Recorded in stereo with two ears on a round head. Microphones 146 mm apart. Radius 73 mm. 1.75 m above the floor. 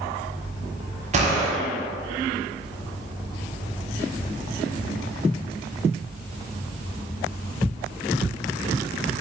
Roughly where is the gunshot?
Right.